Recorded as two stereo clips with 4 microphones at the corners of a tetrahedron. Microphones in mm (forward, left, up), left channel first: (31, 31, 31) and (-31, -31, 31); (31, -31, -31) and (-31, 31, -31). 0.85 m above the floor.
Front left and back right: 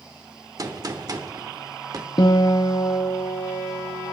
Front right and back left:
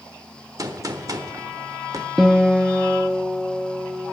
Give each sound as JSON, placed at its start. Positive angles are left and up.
{"t": 0.6, "sound": "a gunshot", "azimuth_deg": 180, "distance_m": 1.1}
{"t": 2.2, "sound": "a guitar", "azimuth_deg": 45, "distance_m": 1.2}